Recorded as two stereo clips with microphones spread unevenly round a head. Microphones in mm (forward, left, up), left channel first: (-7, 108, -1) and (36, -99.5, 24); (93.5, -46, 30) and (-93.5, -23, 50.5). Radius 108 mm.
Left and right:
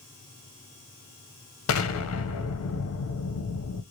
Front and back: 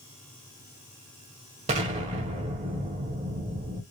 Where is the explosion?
115° left, 1.2 m.